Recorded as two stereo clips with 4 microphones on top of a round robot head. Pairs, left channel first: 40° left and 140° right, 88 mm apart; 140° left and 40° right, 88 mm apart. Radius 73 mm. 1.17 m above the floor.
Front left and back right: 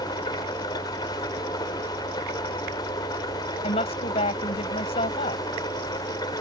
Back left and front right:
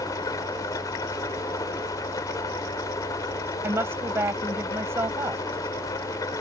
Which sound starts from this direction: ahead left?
A woman speaking, at 3.6 s.